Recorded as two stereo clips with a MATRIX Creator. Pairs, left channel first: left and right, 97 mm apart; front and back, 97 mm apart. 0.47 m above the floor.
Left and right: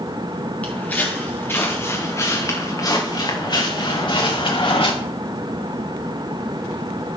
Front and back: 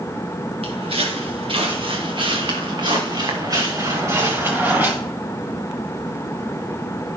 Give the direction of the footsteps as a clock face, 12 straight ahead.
7 o'clock.